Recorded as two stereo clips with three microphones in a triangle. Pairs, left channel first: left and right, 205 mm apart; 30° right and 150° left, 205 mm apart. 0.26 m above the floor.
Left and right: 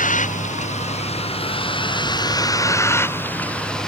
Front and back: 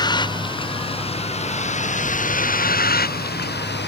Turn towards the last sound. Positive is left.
turn(degrees=0)